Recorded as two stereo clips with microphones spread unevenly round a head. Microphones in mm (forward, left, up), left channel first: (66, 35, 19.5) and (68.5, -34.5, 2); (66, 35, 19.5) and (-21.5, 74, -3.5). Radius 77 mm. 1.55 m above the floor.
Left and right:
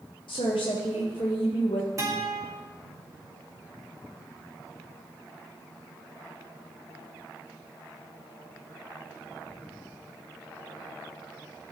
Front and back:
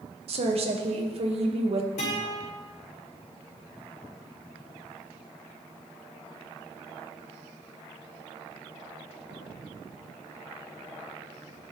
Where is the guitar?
50° right, 3.5 m.